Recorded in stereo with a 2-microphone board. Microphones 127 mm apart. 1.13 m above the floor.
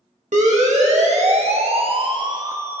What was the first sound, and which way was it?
A siren, 65° right (ahead or behind).